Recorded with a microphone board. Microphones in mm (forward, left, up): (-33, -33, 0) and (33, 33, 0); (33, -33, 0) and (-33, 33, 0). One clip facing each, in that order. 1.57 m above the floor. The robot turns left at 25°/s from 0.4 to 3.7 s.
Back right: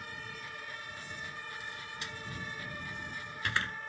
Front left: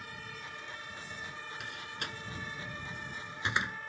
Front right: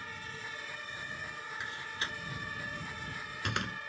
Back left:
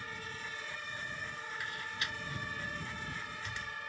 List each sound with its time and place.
1.6 s a door slam: 20° left; by 3.8 s 30° right